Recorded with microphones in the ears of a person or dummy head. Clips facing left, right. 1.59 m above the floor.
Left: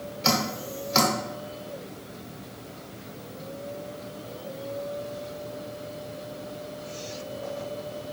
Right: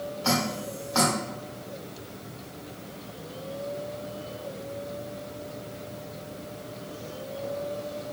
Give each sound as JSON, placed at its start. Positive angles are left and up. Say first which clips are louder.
{"t": 0.2, "sound": "dripping", "louder": "left 1 dB", "side_deg": 30, "distance_m": 1.1}